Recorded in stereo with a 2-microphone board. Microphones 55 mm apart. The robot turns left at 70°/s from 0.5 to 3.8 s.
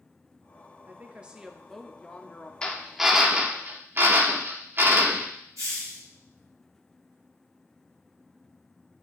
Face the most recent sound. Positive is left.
turn(degrees=-65)  # may be behind; listen again after turning